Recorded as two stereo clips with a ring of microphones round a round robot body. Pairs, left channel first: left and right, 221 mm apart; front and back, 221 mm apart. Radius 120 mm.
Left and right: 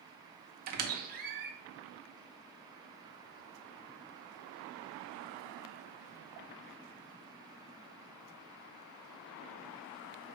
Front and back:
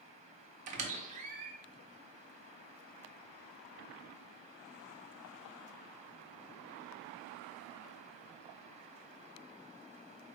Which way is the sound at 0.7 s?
130° right.